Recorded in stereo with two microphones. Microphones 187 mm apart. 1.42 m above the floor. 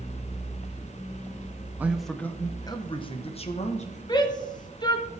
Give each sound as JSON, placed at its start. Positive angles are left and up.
{"t": 1.8, "sound": "a man speaking", "side_deg": -10, "distance_m": 0.7}
{"t": 4.1, "sound": "a shout", "side_deg": 25, "distance_m": 1.5}